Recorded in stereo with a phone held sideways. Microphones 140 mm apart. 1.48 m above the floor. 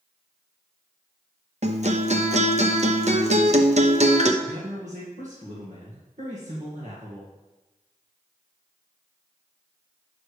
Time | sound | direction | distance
1.6 | a guitar | 55° right (ahead or behind) | 0.8 m
4.4 | a man speaking | 55° right (ahead or behind) | 1.9 m